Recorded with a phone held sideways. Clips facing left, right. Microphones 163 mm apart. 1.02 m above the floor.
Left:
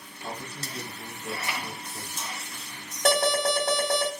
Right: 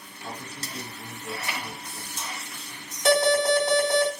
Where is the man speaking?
40° left (ahead or behind), 1.7 m.